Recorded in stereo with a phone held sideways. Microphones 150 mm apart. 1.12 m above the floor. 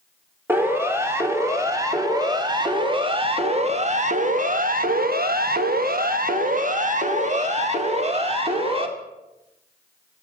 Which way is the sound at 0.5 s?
15° right (ahead or behind).